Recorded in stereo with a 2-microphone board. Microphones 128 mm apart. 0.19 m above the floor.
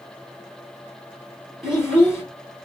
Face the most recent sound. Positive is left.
turn(degrees=-5)  # may be behind; listen again after turning